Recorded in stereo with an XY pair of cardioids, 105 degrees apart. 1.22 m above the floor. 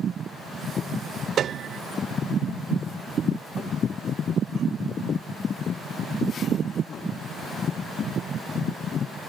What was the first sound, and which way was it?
A piano, 60° right.